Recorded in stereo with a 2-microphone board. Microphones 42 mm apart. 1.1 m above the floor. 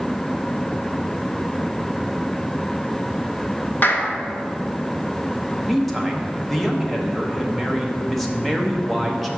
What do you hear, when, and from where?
3.8 s a clap: 45° left (ahead or behind), 1.0 m
5.7 s a man speaking: centre (ahead or behind), 1.0 m